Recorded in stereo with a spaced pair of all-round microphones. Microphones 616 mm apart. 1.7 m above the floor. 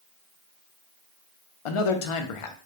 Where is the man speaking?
65° left (ahead or behind), 0.5 m.